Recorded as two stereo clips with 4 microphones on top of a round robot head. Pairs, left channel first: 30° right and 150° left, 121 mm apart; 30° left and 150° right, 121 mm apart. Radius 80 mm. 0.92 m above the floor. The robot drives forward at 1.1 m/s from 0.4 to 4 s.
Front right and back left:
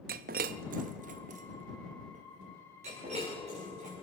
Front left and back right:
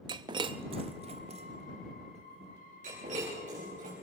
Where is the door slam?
I don't hear a door slam.